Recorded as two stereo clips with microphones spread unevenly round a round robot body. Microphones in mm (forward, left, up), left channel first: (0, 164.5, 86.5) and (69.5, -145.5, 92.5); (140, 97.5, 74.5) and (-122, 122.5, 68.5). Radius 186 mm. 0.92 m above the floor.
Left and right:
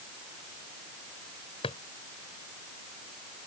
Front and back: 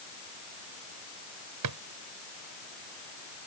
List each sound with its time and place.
1.6 s a drawer: straight behind